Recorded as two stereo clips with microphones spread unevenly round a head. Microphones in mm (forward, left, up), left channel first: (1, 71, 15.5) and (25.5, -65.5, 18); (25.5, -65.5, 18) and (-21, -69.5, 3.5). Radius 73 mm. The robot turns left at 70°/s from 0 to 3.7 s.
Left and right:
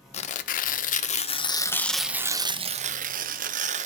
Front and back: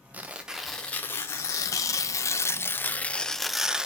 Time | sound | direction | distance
0.1 | tearing paper | 140° left | 0.7 m